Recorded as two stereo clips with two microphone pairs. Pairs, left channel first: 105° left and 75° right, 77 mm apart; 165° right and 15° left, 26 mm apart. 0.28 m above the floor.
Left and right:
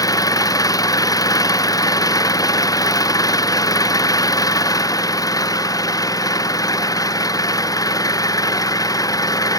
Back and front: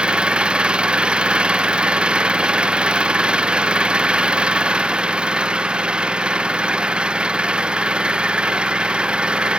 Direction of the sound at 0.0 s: 65° left.